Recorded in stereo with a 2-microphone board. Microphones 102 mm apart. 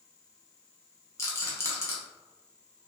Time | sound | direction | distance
1.2 | a rattle | 30° left (ahead or behind) | 0.7 m